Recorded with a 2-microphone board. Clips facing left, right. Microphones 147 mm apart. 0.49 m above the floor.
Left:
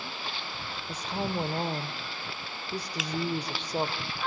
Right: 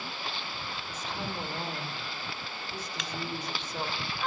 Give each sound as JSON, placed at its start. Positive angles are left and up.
{"t": 0.9, "sound": "a woman speaking", "side_deg": 40, "distance_m": 1.4}
{"t": 3.0, "sound": "a finger snap", "side_deg": 5, "distance_m": 0.7}